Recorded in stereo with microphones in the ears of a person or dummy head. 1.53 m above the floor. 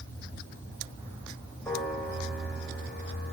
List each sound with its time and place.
1.6 s a piano: 10° left (ahead or behind), 6 m